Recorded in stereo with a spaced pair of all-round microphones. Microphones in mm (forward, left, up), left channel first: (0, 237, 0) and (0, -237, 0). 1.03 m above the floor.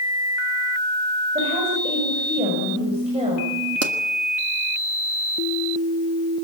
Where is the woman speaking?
15° right (ahead or behind), 6.5 m.